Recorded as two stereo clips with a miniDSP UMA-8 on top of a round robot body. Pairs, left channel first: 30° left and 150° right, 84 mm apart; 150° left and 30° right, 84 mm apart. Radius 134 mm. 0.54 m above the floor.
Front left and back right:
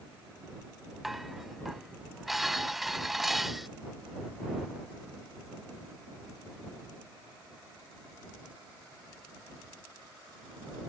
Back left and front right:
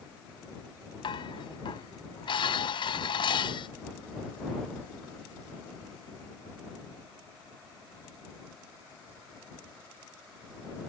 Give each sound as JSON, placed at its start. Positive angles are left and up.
{"t": 1.0, "sound": "dishes clattering", "azimuth_deg": 120}